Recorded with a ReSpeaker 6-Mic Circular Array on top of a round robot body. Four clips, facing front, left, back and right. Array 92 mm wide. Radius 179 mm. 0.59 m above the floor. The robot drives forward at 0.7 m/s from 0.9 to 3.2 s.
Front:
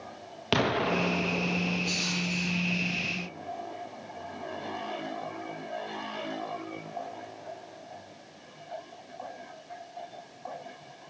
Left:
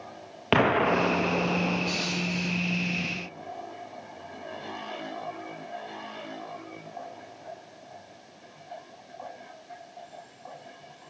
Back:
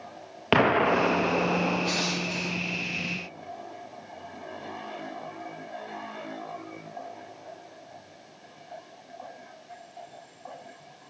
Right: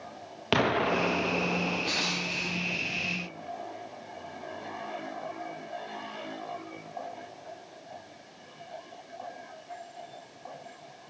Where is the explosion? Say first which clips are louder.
Left 4 dB, back 5 dB; 150° left, 1.0 m; by 2.9 s 170° left, 2 m.